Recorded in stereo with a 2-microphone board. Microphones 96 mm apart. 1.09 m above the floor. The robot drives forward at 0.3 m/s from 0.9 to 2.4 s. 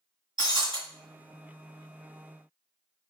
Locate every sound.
0.4 s breaking glass: 60° right (ahead or behind), 1.7 m